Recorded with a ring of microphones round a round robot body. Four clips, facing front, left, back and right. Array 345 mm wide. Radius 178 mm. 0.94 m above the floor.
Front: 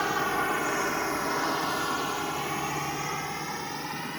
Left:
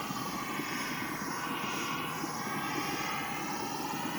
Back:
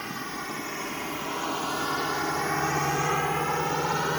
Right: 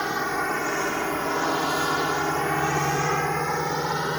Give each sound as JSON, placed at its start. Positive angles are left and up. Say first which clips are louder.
{"t": 0.0, "sound": "a drone", "louder": "right 11 dB, front 8 dB", "azimuth_deg": -50}